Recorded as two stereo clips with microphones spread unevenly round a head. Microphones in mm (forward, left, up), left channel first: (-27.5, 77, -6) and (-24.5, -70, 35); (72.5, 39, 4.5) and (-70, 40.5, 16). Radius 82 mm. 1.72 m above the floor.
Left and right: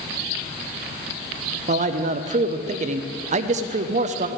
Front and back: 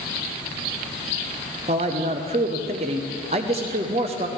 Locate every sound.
1.7 s a man speaking: 125° right, 0.5 m